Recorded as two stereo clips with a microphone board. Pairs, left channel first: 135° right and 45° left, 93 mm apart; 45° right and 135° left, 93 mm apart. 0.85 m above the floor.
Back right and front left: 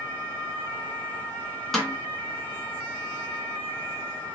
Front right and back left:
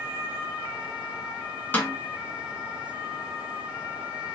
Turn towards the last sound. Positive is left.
turn(degrees=-50)